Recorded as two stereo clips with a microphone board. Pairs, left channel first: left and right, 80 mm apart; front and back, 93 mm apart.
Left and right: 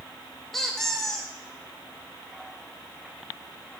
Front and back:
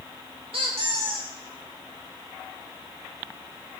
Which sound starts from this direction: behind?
A squeak, at 0.5 s.